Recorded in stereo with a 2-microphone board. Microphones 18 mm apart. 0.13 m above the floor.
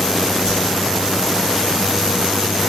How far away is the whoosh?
About 5 m.